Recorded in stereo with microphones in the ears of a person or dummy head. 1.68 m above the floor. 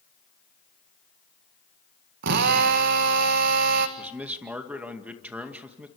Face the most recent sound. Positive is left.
turn(degrees=-10)  # may be behind; listen again after turning